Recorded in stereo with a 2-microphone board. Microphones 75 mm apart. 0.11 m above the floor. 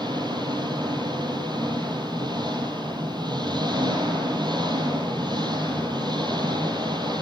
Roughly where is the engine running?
Right.